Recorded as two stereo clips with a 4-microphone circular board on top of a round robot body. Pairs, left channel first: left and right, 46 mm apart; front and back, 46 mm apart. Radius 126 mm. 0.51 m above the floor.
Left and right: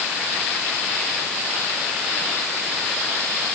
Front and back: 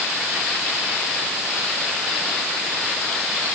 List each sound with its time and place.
Only background noise.